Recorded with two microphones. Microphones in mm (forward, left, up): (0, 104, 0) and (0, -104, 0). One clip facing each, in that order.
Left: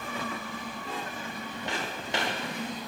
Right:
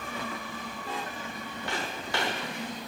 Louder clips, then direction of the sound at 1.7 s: Even; 20° left (ahead or behind).